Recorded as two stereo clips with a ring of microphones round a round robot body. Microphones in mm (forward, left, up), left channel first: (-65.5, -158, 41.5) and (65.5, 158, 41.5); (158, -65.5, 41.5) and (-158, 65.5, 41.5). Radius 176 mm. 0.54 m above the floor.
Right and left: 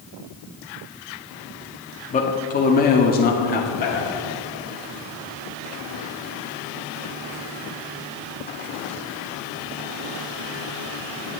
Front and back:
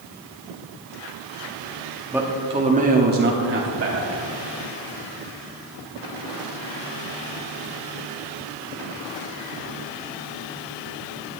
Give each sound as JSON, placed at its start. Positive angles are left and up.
{"t": 2.1, "sound": "a man speaking", "azimuth_deg": -125, "distance_m": 1.0}